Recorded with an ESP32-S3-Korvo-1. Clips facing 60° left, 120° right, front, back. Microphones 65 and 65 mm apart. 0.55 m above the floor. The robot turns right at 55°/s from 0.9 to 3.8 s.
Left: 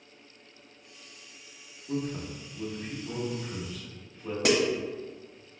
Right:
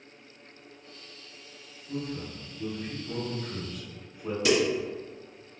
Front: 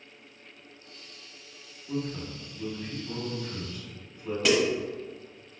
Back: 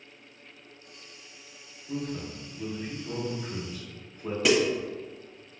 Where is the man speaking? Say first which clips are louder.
Left 2 dB, front 1 dB; 60° left, 1.0 m; by 4.3 s 165° left, 1.0 m.